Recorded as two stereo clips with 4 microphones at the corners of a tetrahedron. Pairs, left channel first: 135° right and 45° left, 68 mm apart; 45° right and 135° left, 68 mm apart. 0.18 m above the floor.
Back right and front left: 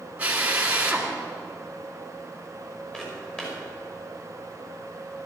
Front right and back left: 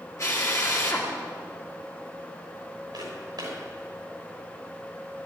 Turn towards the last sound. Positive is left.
turn(degrees=150)